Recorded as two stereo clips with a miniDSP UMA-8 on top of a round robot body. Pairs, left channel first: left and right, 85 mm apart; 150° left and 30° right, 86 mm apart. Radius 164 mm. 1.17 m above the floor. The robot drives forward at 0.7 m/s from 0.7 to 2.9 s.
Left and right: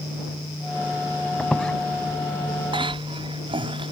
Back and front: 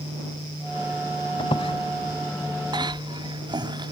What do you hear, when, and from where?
1.4 s a squeak: 170° left; by 1.7 s 175° left
2.7 s a cough: 65° right